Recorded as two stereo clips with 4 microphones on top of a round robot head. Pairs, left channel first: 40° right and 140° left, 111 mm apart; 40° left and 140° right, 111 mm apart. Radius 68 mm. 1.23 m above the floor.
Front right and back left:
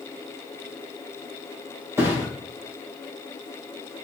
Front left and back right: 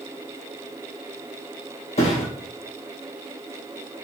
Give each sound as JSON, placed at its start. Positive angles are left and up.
{"t": 2.0, "sound": "a thud", "azimuth_deg": 70, "distance_m": 3.0}